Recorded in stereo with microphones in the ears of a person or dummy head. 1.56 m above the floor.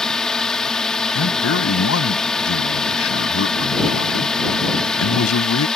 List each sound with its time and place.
0.0 s a drone: centre (ahead or behind)
1.1 s a man speaking: 80° left